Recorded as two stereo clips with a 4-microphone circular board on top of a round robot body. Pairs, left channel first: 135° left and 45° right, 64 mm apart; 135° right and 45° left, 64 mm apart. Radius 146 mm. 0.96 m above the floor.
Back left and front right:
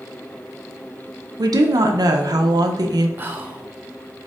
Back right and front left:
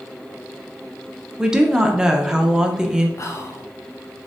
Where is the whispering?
100° right, 0.5 m.